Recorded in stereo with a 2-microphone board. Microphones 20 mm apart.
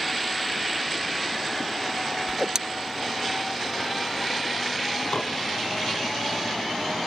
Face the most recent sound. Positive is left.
turn(degrees=50)  # may be behind; listen again after turning